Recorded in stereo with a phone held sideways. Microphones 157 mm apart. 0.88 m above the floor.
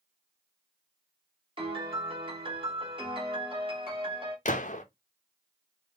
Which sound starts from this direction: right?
A piano, at 1.6 s.